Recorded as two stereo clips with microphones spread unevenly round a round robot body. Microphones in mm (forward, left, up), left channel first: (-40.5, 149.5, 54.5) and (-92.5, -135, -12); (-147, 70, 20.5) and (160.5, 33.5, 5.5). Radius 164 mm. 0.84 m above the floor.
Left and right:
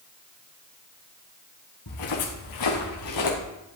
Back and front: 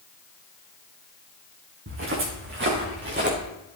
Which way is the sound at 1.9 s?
45° left.